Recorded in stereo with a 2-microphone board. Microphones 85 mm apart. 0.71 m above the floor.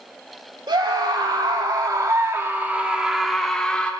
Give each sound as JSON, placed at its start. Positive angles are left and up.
{"t": 0.7, "sound": "a scream", "side_deg": -70, "distance_m": 2.5}